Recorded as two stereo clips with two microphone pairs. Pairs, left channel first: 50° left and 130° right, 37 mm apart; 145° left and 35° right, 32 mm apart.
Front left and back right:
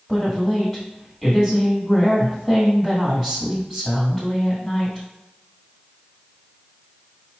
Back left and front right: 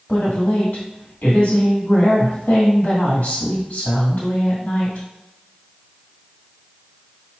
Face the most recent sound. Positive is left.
turn(degrees=145)